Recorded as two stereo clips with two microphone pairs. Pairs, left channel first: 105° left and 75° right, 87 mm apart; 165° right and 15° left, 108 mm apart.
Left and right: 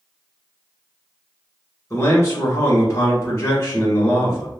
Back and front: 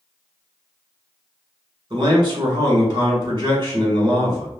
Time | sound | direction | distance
1.9 | a man speaking | 60° left | 1.8 m